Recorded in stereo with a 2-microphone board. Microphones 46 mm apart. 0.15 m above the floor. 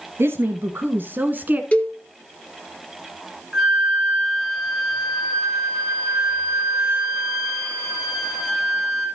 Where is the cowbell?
30° left (ahead or behind), 1.6 m.